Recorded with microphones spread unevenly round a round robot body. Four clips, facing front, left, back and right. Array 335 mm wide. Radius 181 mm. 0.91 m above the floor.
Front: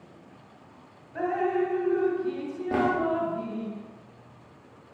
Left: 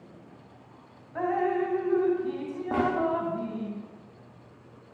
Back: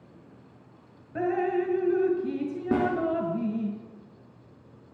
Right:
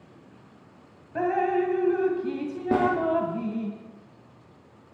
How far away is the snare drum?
About 9 m.